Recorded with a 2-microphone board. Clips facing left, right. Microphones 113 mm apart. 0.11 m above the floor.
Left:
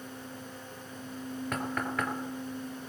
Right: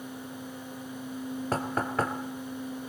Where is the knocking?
35° right (ahead or behind), 2.0 m.